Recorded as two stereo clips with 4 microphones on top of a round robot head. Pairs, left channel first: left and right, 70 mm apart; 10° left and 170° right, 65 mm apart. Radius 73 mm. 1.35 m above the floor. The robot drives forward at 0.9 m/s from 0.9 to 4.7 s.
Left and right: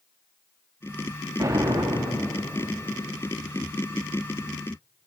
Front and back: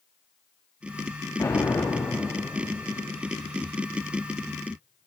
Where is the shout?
No shout in this recording.